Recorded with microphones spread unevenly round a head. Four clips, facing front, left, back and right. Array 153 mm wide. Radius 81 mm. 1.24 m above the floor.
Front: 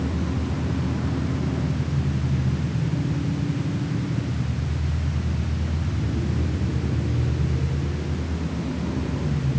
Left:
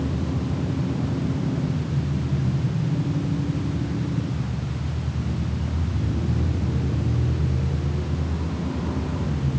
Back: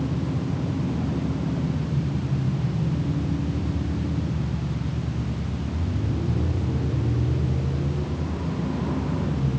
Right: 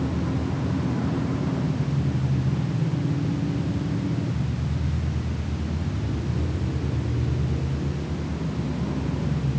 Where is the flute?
I don't hear a flute.